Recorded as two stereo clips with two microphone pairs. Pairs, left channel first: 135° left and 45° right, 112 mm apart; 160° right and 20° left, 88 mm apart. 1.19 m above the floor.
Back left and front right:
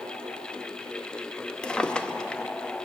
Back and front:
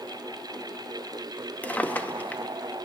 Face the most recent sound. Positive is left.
turn(degrees=-150)